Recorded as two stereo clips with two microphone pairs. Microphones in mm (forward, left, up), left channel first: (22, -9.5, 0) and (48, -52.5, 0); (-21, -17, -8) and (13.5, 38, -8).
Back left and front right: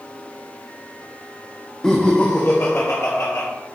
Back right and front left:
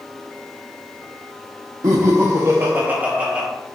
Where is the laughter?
50° left, 1.1 m; by 3.5 s 130° left, 2.5 m.